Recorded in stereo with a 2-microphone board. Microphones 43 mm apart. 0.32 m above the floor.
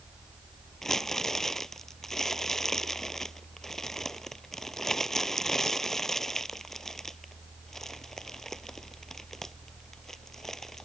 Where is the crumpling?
10° left (ahead or behind).